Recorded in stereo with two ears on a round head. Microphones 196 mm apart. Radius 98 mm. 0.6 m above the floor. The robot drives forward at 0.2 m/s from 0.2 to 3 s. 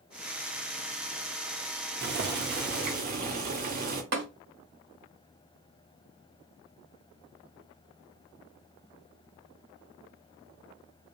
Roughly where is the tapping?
Right.